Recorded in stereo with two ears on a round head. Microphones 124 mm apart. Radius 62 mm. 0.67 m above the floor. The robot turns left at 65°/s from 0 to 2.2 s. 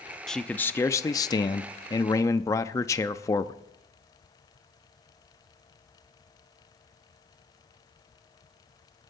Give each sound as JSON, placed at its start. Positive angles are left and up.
{"t": 0.3, "sound": "a man speaking", "side_deg": 0, "distance_m": 0.5}